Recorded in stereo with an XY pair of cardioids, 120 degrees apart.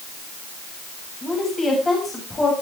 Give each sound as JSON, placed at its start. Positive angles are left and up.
{"t": 1.2, "sound": "a woman speaking", "azimuth_deg": 20, "distance_m": 7.5}